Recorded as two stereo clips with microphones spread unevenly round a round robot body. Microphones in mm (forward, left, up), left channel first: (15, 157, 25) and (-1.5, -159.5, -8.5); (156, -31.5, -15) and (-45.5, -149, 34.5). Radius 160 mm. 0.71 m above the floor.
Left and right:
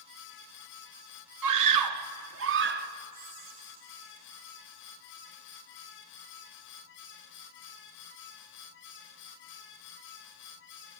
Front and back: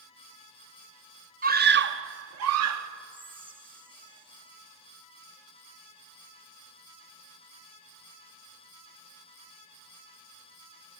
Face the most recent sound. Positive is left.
turn(degrees=-75)